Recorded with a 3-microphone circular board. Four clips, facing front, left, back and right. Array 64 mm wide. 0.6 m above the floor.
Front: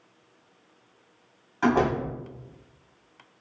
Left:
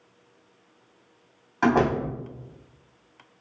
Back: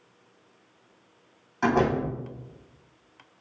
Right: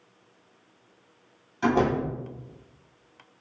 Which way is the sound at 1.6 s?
95° left.